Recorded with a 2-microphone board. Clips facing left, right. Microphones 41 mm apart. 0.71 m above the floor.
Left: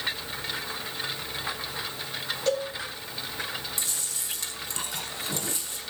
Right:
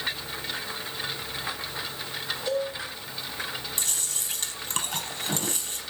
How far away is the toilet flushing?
No toilet flushing in this recording.